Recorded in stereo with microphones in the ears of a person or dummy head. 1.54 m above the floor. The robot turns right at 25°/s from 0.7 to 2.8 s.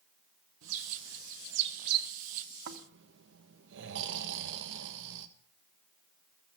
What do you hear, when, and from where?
0.6 s a bird: 85° right, 1.3 m; by 2.1 s 50° right (ahead or behind), 1.3 m
2.7 s snoring: 70° right (ahead or behind), 1.3 m